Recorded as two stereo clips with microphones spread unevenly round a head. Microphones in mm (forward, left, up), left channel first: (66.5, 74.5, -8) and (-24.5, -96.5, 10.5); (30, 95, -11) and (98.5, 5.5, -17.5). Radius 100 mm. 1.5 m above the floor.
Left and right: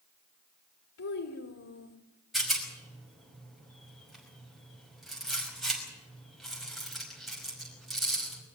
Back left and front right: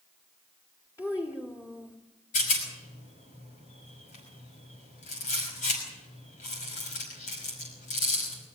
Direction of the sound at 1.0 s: 65° left.